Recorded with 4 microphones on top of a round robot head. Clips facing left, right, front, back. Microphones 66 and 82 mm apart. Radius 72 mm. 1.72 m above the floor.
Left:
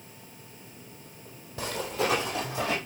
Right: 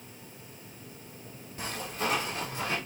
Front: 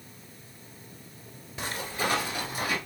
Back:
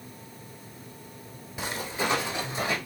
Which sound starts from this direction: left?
Footsteps, at 1.6 s.